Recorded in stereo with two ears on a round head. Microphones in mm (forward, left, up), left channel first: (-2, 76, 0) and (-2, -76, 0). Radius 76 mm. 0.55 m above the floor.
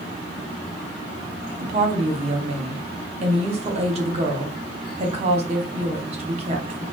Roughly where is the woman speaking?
Right.